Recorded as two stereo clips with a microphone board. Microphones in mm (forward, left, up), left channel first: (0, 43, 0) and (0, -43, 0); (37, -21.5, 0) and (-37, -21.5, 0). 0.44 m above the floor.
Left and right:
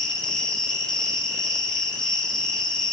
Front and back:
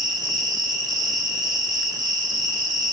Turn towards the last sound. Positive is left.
turn(degrees=175)